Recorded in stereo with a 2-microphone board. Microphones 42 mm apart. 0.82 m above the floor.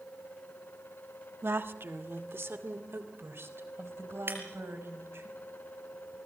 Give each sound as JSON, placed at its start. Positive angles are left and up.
{"t": 1.4, "sound": "a woman speaking", "side_deg": -65, "distance_m": 1.2}
{"t": 4.3, "sound": "breaking glass", "side_deg": -60, "distance_m": 4.0}